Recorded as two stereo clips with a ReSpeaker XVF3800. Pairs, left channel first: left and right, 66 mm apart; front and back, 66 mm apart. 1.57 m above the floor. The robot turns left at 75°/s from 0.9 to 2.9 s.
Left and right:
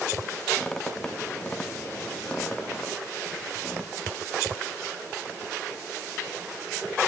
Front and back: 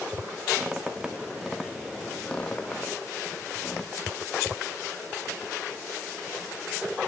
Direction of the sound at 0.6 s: 145° left.